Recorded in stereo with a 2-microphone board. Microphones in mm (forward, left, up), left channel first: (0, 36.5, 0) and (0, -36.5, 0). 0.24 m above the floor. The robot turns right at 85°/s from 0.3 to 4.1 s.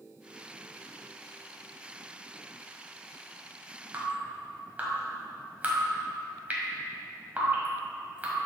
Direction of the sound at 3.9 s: 25° right (ahead or behind).